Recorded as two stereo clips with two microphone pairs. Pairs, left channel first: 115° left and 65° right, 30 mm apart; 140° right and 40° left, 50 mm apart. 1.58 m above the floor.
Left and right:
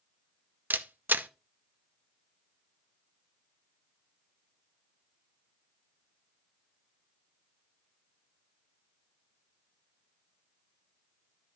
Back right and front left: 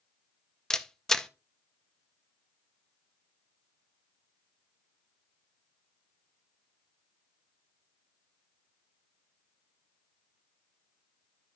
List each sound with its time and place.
0.7 s a camera shutter: 60° right, 0.7 m